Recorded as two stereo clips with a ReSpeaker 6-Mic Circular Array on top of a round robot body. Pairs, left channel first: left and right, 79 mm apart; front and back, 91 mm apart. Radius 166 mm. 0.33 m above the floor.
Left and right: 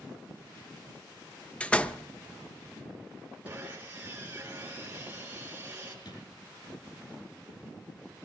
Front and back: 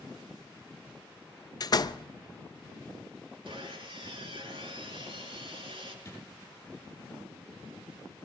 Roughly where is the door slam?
Ahead.